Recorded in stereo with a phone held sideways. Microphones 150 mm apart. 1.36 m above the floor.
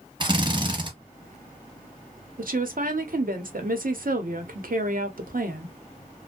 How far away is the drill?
About 0.8 m.